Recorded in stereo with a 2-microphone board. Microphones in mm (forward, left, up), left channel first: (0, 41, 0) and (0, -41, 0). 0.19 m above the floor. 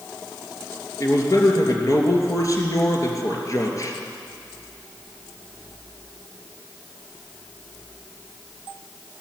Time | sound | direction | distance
1.0 | a man speaking | 40° left (ahead or behind) | 2.5 m